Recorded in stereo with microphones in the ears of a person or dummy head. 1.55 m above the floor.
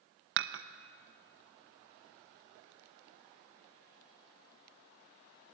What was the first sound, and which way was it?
Dishes clattering, 60° right (ahead or behind).